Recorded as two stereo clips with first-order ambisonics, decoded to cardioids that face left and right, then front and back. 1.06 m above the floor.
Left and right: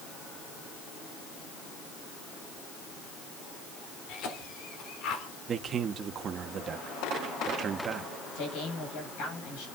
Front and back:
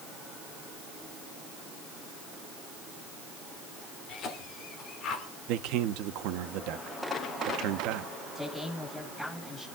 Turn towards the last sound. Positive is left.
turn(degrees=85)